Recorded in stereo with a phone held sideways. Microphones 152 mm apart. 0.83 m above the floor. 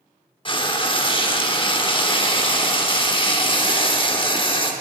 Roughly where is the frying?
Left.